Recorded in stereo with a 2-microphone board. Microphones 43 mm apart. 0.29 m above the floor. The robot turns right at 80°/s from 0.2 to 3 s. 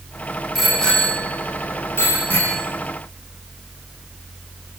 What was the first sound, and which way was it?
A bicycle bell, 10° right (ahead or behind).